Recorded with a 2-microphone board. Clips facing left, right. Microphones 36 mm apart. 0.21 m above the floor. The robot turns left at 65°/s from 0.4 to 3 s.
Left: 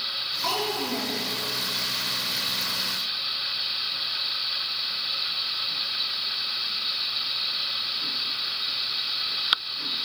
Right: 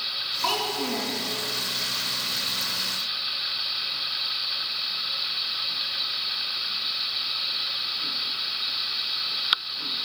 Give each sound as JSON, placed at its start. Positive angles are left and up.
{"t": 0.4, "sound": "a child speaking", "azimuth_deg": -30, "distance_m": 1.8}